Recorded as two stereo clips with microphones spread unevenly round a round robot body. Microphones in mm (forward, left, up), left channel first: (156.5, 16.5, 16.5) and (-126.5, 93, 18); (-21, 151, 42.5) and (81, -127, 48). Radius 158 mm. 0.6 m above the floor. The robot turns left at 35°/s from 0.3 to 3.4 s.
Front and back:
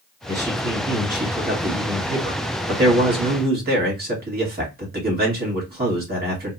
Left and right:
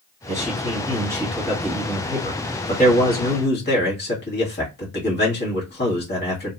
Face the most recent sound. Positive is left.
turn(degrees=130)